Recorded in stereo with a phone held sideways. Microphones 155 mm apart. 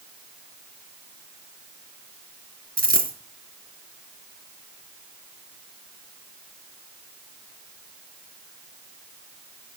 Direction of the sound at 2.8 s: 70° right (ahead or behind).